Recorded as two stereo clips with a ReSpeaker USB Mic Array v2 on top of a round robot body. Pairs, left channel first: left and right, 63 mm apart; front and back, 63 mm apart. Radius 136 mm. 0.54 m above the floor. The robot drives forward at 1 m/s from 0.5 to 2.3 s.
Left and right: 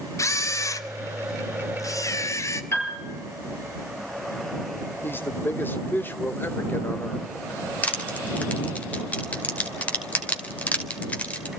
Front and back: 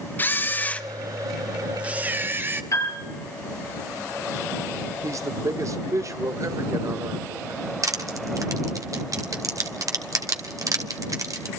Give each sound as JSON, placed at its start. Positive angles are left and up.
{"t": 0.2, "sound": "a camera shutter", "azimuth_deg": 55, "distance_m": 1.7}
{"t": 2.7, "sound": "a piano", "azimuth_deg": 40, "distance_m": 7.0}
{"t": 5.0, "sound": "a man speaking", "azimuth_deg": 145, "distance_m": 2.0}
{"t": 7.8, "sound": "crushing", "azimuth_deg": 155, "distance_m": 3.0}